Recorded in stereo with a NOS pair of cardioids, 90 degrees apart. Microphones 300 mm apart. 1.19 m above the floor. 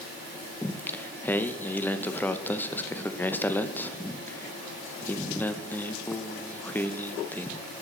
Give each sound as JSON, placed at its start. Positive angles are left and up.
{"t": 0.6, "sound": "singing", "azimuth_deg": 5, "distance_m": 0.6}